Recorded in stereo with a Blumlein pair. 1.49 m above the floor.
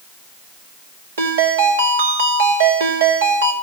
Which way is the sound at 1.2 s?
65° right.